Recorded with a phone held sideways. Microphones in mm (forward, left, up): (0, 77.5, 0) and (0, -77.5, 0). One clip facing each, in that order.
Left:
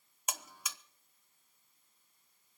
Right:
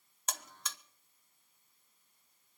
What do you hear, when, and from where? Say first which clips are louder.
0.3 s a buzzer: even; 10° left (ahead or behind), 0.8 m